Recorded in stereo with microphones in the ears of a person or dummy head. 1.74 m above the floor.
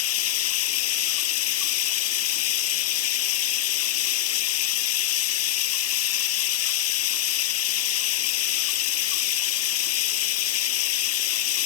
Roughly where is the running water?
Left.